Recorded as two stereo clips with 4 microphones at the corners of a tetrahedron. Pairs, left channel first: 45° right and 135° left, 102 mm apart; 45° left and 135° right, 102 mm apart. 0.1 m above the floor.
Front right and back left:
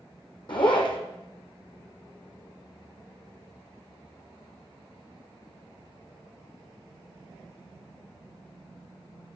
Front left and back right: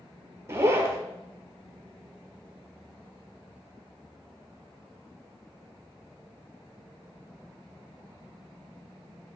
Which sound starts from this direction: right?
A zipper, at 0.5 s.